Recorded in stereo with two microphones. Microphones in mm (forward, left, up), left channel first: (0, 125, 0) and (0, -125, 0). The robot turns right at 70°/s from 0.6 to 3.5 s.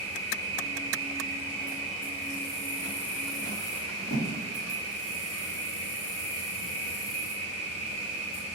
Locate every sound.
0.0 s an insect: 90° right, 1.7 m; by 8.6 s 115° left, 1.7 m
4.1 s a thud: 70° left (ahead or behind), 1.8 m